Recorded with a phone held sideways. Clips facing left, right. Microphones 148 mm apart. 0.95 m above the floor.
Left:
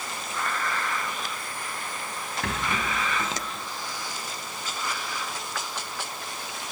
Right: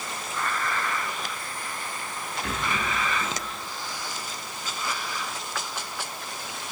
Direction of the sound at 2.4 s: 75° left (ahead or behind).